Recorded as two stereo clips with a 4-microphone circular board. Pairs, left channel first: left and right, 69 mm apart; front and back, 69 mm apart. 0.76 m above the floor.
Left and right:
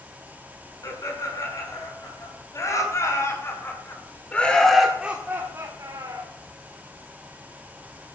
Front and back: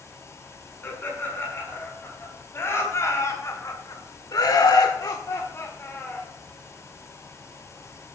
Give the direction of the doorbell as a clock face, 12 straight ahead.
No doorbell in this recording.